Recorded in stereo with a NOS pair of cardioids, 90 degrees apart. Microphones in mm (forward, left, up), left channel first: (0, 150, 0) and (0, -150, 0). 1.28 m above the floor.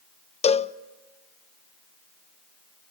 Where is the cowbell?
20° left, 0.6 m.